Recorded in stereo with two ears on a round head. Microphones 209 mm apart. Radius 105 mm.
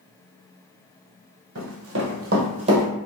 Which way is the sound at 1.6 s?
60° right (ahead or behind).